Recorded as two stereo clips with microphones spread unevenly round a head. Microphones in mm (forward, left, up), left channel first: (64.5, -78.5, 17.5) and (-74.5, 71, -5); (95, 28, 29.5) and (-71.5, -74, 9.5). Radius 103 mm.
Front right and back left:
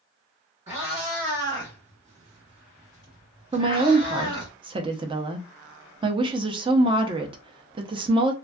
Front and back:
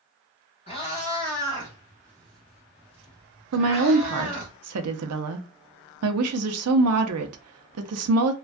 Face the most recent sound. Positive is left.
turn(degrees=-160)